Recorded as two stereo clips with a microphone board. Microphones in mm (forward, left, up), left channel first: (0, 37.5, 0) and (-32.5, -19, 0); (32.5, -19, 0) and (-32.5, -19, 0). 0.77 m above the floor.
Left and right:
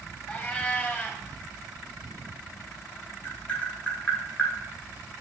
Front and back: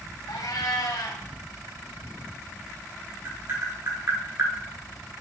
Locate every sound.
0.3 s a cat meowing: straight ahead, 1.7 m
3.2 s tapping: 130° left, 2 m